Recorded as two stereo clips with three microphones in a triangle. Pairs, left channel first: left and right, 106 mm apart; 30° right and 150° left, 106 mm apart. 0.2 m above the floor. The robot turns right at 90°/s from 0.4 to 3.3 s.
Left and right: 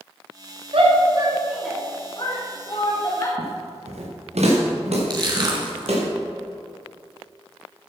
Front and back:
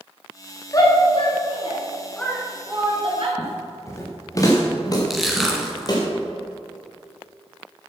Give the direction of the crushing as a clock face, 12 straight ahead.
4 o'clock.